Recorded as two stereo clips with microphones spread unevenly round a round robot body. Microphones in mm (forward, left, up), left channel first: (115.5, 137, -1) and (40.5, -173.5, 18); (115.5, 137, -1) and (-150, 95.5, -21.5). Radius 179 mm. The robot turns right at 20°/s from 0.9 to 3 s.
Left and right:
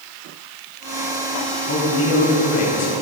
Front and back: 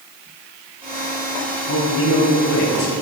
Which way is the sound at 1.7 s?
25° left.